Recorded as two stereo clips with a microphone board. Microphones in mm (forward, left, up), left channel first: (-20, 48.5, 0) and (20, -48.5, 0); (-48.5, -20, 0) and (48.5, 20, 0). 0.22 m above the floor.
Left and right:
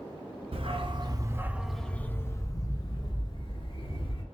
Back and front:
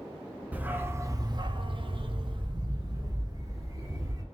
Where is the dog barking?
50° right, 0.8 m; by 4.2 s 80° left, 1.8 m.